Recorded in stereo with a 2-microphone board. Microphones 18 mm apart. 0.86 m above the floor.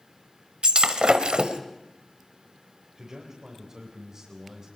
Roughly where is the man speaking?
Right.